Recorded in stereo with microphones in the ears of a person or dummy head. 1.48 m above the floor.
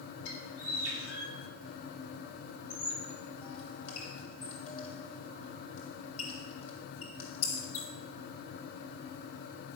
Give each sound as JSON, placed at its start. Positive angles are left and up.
{"t": 0.2, "sound": "a bird", "side_deg": 80, "distance_m": 3.5}
{"t": 2.7, "sound": "a squeak", "side_deg": 35, "distance_m": 2.5}